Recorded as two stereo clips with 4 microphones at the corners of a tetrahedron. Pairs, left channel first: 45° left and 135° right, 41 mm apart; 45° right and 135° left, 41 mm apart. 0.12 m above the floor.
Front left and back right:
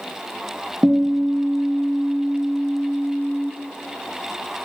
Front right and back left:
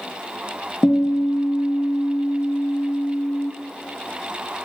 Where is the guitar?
70° right, 0.5 m.